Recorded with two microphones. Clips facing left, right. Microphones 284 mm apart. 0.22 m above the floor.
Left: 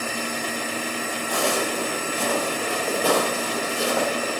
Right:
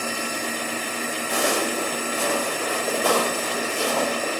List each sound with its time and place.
1.3 s footsteps: 25° right (ahead or behind), 0.7 m; by 4.3 s 5° left (ahead or behind), 2.5 m